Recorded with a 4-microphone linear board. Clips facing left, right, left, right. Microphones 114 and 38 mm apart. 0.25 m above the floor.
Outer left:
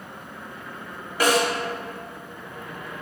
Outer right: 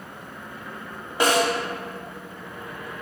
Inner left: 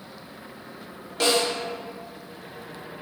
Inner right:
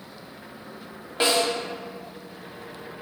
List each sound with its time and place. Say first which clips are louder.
1.2 s a snare drum: even, even; 20° right (ahead or behind), 0.9 m